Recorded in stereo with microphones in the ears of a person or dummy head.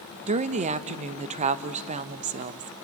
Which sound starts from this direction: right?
A woman speaking, at 0.3 s.